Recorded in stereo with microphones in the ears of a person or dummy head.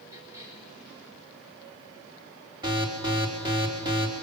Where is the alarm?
20° right (ahead or behind), 3.5 m.